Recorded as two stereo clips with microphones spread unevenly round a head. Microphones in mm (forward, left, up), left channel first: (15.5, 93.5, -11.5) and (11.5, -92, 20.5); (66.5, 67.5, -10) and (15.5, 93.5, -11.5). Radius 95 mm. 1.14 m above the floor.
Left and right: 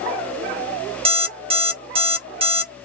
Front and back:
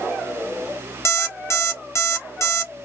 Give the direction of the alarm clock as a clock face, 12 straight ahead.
2 o'clock.